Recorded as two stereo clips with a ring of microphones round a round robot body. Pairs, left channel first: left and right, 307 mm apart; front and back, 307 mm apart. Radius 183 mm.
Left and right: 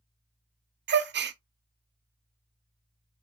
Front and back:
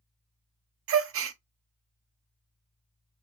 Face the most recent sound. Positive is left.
turn(degrees=-140)